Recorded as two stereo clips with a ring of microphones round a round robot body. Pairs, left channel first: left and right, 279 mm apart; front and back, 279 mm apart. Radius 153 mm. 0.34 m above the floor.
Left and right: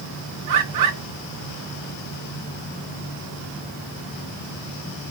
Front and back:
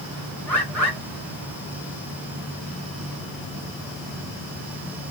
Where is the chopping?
I don't hear chopping.